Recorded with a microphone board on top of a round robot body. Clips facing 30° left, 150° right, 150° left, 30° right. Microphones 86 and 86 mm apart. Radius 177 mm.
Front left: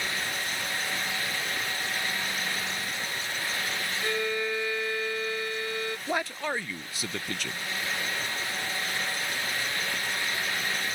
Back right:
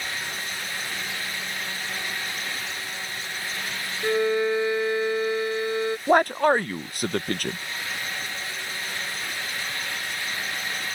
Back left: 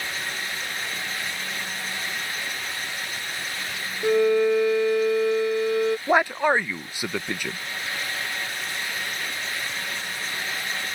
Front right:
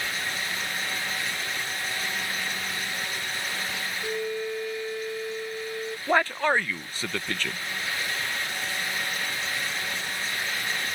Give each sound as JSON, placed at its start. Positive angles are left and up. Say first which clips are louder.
{"t": 4.0, "sound": "a violin", "louder": "back right 9 dB, back left 13 dB", "azimuth_deg": 140}
{"t": 6.1, "sound": "a man speaking", "louder": "back right 13 dB, even", "azimuth_deg": -135}